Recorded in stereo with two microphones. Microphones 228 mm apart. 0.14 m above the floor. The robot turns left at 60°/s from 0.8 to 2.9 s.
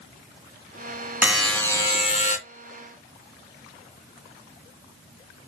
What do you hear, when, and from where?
1.2 s a buzzer: 170° right, 1.8 m; by 2.4 s 120° left, 1.8 m